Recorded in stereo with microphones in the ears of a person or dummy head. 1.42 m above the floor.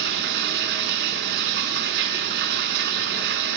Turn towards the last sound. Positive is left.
turn(degrees=-60)  # may be behind; listen again after turning